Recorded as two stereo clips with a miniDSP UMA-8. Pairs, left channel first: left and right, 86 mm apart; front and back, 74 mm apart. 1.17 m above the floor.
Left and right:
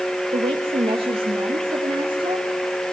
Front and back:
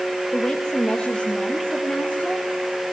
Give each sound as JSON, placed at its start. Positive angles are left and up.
{"t": 0.3, "sound": "a woman speaking", "azimuth_deg": -85, "distance_m": 1.0}